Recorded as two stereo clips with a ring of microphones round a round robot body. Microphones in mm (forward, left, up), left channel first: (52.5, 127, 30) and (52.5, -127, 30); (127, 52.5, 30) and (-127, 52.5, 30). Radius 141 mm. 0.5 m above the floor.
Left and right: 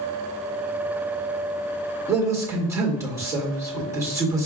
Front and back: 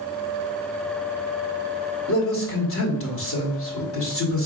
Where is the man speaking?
15° right, 1.8 m.